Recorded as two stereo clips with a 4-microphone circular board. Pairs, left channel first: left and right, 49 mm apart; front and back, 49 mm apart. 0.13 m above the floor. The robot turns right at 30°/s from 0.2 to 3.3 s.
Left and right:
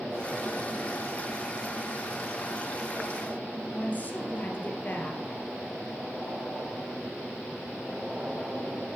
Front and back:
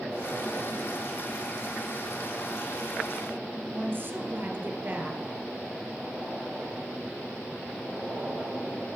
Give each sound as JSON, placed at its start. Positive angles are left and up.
{"t": 3.7, "sound": "a woman speaking", "azimuth_deg": 135, "distance_m": 2.0}